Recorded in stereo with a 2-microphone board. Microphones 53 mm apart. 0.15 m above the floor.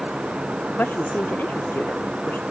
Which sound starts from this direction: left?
A woman speaking, at 0.7 s.